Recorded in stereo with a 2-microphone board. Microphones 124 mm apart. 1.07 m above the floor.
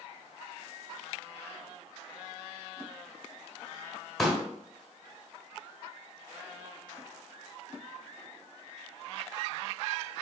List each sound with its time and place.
4.2 s a pop: centre (ahead or behind), 1.3 m